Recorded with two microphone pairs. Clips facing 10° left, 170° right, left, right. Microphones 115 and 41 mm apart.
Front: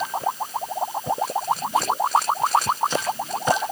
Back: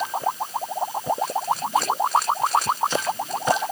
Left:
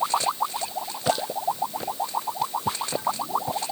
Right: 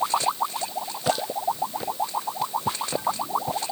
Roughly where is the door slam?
No door slam in this recording.